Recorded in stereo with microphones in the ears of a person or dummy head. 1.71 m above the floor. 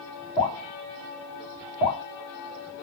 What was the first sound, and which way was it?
Dripping, 35° left (ahead or behind).